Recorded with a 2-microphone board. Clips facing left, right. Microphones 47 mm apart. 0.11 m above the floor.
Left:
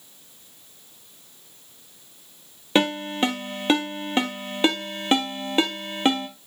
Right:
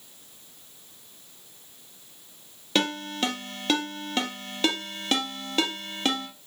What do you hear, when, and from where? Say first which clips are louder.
2.8 s a ringtone: left 5 dB; 20° left (ahead or behind), 1.4 m